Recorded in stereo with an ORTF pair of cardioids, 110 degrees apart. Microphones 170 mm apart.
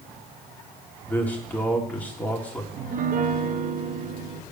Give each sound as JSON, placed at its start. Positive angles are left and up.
{"t": 1.1, "sound": "a man speaking", "azimuth_deg": 10, "distance_m": 3.0}
{"t": 2.7, "sound": "a piano", "azimuth_deg": -50, "distance_m": 1.1}